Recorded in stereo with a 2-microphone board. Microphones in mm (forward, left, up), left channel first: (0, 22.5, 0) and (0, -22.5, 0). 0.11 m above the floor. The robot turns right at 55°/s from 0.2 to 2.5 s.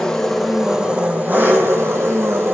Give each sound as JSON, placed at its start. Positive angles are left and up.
{"t": 0.0, "sound": "an engine running", "azimuth_deg": 170, "distance_m": 2.5}